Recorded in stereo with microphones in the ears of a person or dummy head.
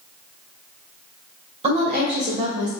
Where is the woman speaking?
35° right (ahead or behind), 1.5 m; by 2.7 s 60° right (ahead or behind), 1.6 m.